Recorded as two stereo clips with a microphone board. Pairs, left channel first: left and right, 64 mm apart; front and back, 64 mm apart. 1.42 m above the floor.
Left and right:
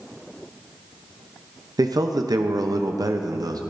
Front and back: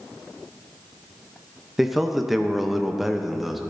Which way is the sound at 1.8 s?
95° right.